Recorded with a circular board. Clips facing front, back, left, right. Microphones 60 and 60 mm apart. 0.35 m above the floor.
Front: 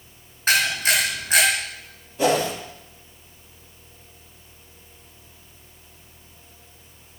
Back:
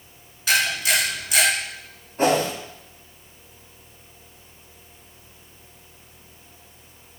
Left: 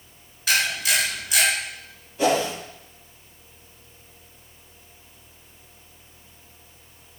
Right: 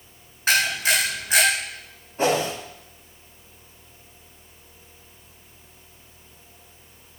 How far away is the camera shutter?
About 4.5 m.